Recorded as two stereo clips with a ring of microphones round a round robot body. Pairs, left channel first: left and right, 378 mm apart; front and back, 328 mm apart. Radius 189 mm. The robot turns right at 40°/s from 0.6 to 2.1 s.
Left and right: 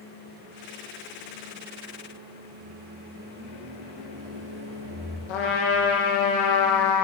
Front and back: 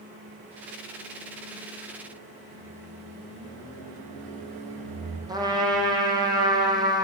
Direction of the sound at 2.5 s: 150° right.